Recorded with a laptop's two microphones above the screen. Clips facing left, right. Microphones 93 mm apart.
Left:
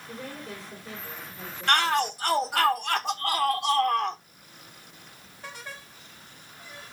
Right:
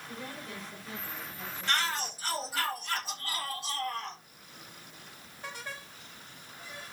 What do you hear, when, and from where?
0.1 s a woman speaking: 35° left (ahead or behind), 5.5 m; by 2.7 s 20° left (ahead or behind), 5 m
1.7 s a shout: 60° left (ahead or behind), 1.1 m